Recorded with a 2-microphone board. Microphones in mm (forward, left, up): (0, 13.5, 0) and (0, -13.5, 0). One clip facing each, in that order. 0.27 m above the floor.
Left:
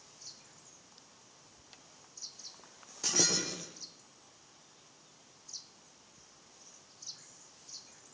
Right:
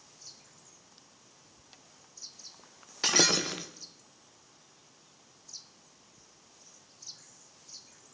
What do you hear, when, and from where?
3.0 s breaking glass: 55° right (ahead or behind), 2.5 m